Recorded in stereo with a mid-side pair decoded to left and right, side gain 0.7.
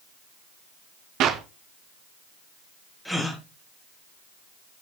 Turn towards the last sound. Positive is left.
turn(degrees=5)